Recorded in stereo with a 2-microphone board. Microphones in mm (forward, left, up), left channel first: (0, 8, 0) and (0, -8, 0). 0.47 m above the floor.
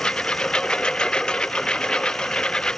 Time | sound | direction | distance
0.0 | a lawn mower | 75° left (ahead or behind) | ?